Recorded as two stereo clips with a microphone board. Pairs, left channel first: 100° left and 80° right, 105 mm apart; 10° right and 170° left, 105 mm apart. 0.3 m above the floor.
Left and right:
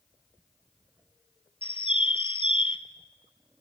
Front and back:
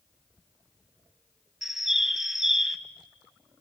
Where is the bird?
85° left, 1.0 m.